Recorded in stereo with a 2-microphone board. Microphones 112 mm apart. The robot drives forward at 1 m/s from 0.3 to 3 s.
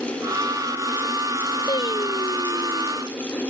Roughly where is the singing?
Left.